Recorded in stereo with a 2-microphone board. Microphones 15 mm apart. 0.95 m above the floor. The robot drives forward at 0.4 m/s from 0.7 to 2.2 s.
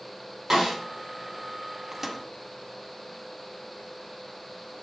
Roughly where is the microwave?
Centre.